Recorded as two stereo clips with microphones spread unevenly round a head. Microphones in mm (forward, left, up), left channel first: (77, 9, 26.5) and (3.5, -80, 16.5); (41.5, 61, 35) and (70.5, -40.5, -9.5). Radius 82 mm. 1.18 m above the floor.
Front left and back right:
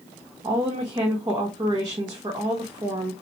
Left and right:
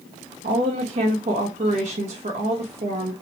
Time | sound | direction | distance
0.4 | a woman speaking | 75° right | 1.3 m